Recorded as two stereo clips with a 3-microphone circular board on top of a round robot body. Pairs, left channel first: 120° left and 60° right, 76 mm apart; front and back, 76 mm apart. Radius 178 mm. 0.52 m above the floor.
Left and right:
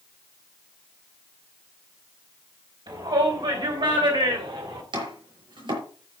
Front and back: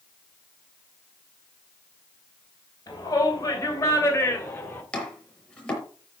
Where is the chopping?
75° right, 6 m.